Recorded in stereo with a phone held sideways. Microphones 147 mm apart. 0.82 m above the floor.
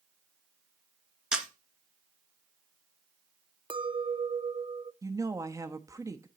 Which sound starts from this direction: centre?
A camera shutter, at 1.3 s.